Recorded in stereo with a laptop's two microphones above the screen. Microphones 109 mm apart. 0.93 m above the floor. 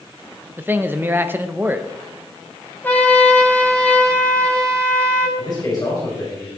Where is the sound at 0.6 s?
20° right (ahead or behind), 0.6 m.